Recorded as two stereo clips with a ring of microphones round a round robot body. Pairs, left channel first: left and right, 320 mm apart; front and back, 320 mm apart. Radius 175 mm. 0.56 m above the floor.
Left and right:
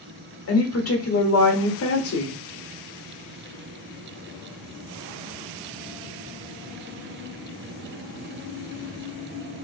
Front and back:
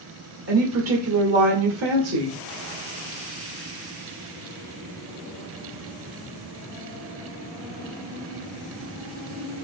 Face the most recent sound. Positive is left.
turn(degrees=135)